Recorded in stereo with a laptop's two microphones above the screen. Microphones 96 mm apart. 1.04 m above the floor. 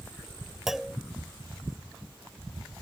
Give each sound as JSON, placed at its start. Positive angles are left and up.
{"t": 0.7, "sound": "a clunk", "side_deg": -5}